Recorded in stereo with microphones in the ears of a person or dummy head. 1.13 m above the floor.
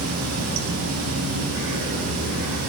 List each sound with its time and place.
0.0 s running water: 80° right, 5 m